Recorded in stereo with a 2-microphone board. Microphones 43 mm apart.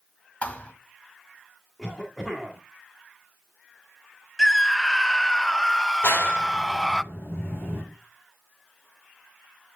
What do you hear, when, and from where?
0.4 s a thud: 30° left (ahead or behind), 1.5 m
1.8 s a cough: centre (ahead or behind), 2 m
4.4 s a scream: 10° left (ahead or behind), 0.6 m
6.0 s a clap: 70° left (ahead or behind), 3 m